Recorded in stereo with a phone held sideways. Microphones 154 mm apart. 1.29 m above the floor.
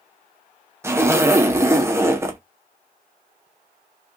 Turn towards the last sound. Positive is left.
turn(degrees=-15)  # may be behind; listen again after turning